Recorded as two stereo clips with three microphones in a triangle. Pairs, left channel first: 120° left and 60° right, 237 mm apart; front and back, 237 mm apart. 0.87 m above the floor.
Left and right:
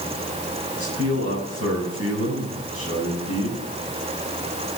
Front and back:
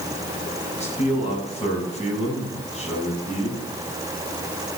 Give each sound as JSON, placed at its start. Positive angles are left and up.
{"t": 0.8, "sound": "a man speaking", "azimuth_deg": -60, "distance_m": 8.0}